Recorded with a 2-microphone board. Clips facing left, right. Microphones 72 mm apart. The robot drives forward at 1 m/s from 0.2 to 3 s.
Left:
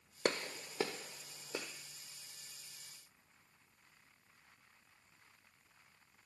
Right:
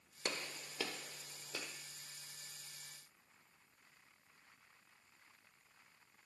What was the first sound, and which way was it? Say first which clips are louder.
A gunshot: left 7 dB; 70° left (ahead or behind).